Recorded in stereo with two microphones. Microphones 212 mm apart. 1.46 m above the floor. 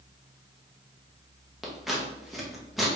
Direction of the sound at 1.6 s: Centre (ahead or behind).